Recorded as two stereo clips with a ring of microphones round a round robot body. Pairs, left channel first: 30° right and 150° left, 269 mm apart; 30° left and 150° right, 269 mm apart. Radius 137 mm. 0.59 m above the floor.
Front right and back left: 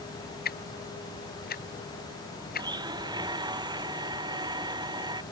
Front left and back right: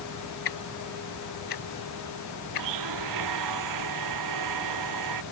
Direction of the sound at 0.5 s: 30° left.